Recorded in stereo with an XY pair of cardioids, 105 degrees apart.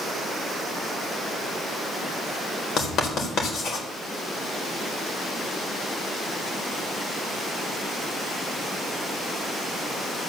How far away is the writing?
About 3.5 m.